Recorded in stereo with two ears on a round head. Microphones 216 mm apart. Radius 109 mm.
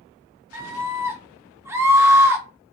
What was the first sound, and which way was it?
A scream, 10° right (ahead or behind).